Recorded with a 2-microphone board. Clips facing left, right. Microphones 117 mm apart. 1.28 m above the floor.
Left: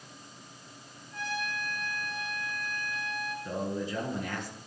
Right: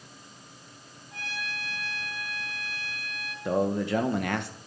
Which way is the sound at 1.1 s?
80° right.